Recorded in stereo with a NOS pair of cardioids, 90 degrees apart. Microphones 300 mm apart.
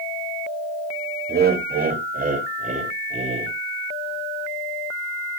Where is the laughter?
35° right, 3 m; by 3.5 s 20° right, 4 m.